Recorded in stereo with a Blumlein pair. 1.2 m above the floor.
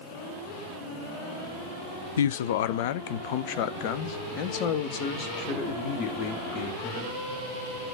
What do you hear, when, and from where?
2.2 s a man speaking: 65° left, 0.6 m; by 7.2 s 35° left, 3 m